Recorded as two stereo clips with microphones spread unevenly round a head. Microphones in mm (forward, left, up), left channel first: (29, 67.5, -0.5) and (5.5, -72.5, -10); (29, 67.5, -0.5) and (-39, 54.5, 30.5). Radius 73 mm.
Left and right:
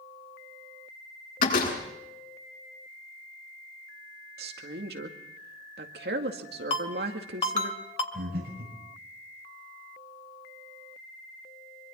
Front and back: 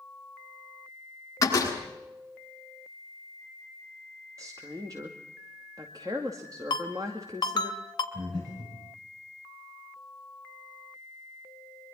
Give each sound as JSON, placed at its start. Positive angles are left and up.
{"t": 1.4, "sound": "a door slam", "azimuth_deg": 55, "distance_m": 7.5}
{"t": 4.4, "sound": "a woman speaking", "azimuth_deg": -100, "distance_m": 2.0}
{"t": 6.7, "sound": "a ringtone", "azimuth_deg": 30, "distance_m": 2.5}
{"t": 8.1, "sound": "breathing", "azimuth_deg": -125, "distance_m": 7.5}